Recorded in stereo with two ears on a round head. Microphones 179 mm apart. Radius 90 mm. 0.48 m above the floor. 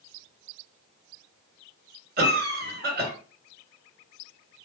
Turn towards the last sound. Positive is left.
turn(degrees=-50)  # may be behind; listen again after turning